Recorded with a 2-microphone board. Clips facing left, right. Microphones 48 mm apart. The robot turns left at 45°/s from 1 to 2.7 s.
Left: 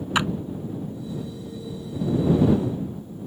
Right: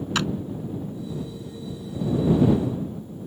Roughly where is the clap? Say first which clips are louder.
Left 3 dB; left.